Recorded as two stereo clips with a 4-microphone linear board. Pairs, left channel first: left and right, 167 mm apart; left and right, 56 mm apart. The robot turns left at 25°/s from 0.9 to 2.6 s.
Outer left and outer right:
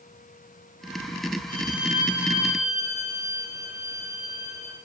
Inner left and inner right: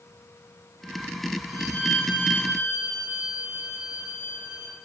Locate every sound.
1.5 s a violin: 70° left (ahead or behind), 7.5 m; by 4.8 s 45° left (ahead or behind), 7.5 m